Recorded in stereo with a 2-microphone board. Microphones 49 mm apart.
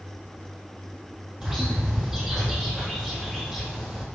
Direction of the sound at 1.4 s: 10° right (ahead or behind).